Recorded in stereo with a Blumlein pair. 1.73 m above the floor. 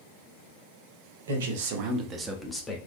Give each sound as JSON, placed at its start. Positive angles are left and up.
{"t": 1.3, "sound": "a man speaking", "azimuth_deg": -65, "distance_m": 0.9}